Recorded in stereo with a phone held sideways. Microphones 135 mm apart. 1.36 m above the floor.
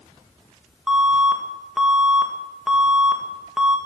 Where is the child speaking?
I don't hear a child speaking.